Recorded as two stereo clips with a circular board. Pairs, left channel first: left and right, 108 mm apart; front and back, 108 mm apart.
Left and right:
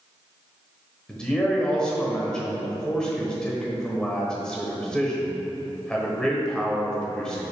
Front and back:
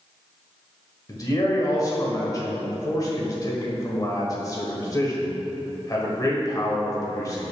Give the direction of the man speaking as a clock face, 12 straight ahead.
12 o'clock.